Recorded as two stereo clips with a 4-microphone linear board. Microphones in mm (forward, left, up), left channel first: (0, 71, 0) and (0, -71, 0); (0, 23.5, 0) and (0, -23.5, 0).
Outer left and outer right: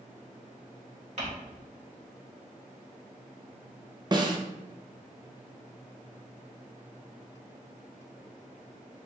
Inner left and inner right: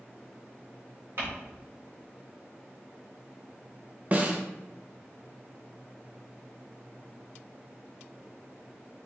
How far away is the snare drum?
About 0.6 m.